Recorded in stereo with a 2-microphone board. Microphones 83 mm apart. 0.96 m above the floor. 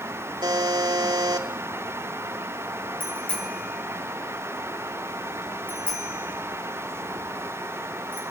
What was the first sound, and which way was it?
A buzzer, 65° right (ahead or behind).